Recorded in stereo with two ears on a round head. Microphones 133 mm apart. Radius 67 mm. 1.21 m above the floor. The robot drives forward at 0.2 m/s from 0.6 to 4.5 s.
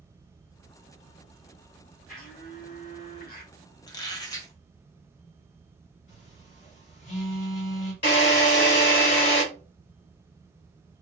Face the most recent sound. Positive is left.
turn(degrees=65)  # may be behind; listen again after turning